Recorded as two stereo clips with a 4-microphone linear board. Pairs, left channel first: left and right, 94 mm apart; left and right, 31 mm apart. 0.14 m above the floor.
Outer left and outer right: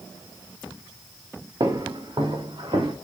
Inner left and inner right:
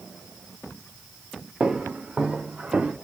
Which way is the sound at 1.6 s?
50° right (ahead or behind).